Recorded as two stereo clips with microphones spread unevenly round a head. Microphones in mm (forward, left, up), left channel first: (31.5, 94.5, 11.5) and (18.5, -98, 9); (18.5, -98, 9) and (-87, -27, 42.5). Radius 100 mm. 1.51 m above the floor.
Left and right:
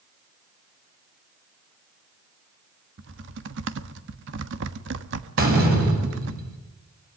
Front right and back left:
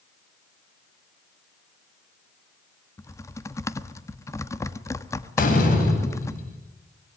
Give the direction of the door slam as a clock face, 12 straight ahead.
2 o'clock.